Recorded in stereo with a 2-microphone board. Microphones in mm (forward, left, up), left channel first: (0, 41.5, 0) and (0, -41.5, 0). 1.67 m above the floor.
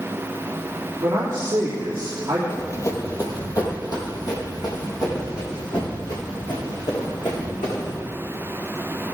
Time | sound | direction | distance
1.0 | a man speaking | 35° right (ahead or behind) | 3 m
2.5 | running footsteps | 35° left (ahead or behind) | 2.5 m